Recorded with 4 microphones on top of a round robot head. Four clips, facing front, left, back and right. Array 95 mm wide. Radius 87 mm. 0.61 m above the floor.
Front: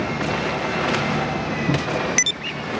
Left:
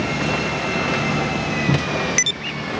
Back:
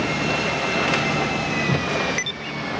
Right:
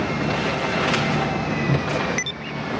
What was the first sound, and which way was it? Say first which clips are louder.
Footsteps: left 1 dB, front 1 dB; 70° left.